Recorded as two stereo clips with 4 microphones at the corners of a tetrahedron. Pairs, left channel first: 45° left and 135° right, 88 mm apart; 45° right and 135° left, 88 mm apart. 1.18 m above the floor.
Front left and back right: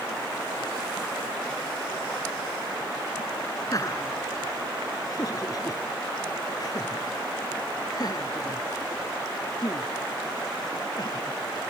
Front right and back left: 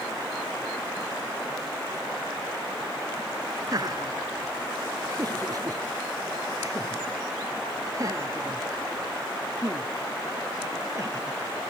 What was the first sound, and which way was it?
Laughter, 90° left.